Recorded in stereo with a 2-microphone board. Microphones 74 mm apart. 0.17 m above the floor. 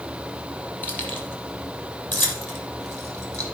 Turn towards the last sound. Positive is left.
turn(degrees=25)  # may be behind; listen again after turning